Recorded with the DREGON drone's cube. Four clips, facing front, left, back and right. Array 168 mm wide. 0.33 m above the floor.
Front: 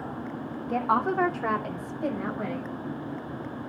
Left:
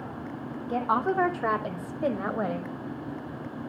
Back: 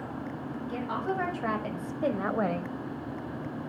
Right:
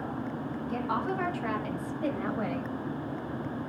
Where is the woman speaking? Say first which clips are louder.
Left 6 dB, front 7 dB; 40° left, 2.0 m; by 2.7 s 150° left, 1.9 m.